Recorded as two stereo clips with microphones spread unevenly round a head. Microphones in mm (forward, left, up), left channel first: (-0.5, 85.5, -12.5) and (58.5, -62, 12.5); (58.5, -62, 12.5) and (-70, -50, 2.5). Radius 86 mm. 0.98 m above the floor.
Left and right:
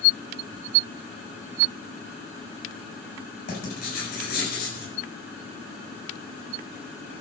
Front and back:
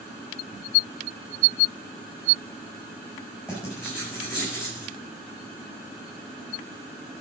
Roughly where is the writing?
Left.